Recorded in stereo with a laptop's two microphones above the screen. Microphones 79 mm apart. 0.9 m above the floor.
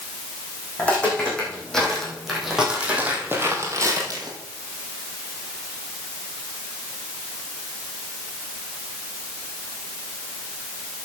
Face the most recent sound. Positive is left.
turn(degrees=-55)  # may be behind; listen again after turning